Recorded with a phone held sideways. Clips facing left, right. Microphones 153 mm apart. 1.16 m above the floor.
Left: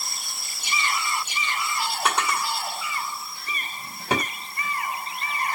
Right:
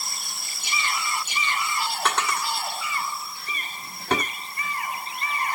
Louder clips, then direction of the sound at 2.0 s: Left 1 dB; 10° left (ahead or behind).